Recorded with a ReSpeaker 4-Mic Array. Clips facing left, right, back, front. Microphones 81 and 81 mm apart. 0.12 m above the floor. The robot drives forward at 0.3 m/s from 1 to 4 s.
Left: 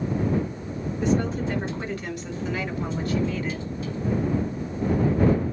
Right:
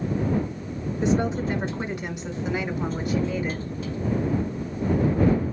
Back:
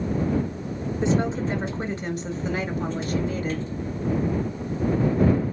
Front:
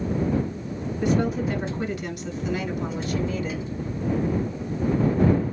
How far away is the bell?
No bell in this recording.